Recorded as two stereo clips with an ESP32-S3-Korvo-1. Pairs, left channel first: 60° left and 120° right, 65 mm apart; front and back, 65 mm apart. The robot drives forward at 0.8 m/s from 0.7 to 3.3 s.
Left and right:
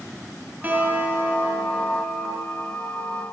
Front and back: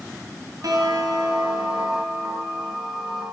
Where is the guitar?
Straight behind, 1.6 m.